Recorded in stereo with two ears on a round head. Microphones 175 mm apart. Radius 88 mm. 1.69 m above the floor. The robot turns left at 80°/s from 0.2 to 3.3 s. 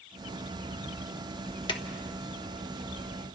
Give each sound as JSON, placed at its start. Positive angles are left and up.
{"t": 1.7, "sound": "a drawer", "side_deg": 25, "distance_m": 1.1}